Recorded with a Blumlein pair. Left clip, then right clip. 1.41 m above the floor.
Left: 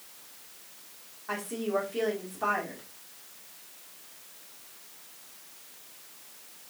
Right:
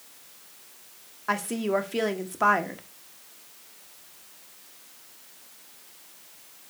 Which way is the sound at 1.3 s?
45° right.